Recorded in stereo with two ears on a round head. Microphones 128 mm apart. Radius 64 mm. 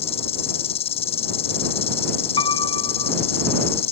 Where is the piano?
35° left (ahead or behind).